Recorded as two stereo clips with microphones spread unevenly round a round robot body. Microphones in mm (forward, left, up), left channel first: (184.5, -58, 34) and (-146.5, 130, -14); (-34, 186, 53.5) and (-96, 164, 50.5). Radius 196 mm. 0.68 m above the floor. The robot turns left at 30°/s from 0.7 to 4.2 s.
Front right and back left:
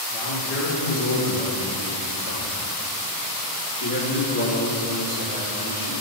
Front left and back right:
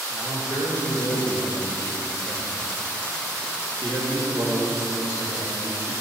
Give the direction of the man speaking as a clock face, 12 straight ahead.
11 o'clock.